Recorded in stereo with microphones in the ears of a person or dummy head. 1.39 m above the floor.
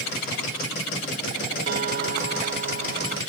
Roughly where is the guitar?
Right.